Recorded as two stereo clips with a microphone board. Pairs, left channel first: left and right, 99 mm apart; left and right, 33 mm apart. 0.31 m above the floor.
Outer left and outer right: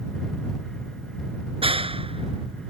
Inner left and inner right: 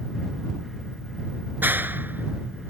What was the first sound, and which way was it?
A clap, 70° right (ahead or behind).